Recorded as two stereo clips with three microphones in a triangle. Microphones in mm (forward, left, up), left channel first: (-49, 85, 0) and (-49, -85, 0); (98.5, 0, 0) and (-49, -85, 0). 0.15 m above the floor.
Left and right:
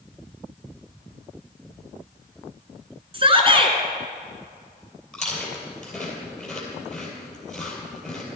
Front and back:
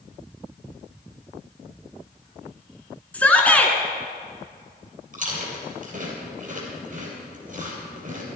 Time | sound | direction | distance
3.1 | a shout | 50° right | 1.6 m
5.1 | chewing | straight behind | 3 m